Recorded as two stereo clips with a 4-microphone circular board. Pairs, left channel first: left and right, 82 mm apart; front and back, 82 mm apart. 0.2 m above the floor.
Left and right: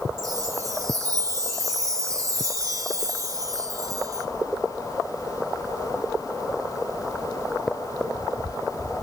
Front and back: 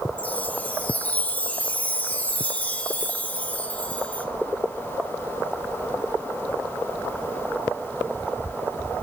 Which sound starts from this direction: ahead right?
A chime, at 0.2 s.